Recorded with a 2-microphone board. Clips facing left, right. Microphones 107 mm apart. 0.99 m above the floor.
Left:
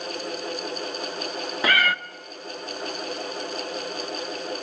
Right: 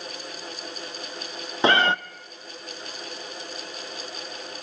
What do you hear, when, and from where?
1.6 s a cat meowing: 25° right (ahead or behind), 0.6 m